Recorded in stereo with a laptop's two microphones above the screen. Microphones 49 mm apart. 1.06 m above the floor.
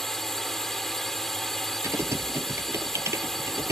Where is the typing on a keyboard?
70° right (ahead or behind).